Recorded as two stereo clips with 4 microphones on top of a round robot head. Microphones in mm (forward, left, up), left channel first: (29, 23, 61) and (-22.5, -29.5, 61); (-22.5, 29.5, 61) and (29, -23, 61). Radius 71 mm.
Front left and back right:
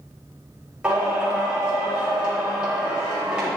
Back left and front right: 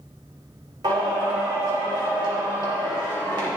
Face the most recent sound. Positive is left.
turn(degrees=-55)